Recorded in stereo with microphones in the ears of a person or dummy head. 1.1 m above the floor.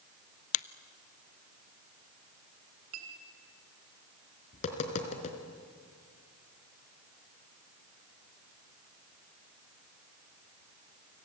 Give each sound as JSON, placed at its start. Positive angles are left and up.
{"t": 0.5, "sound": "a finger snap", "side_deg": 40, "distance_m": 0.6}
{"t": 2.9, "sound": "a clink", "side_deg": -85, "distance_m": 3.5}
{"t": 4.5, "sound": "tapping", "side_deg": 40, "distance_m": 3.0}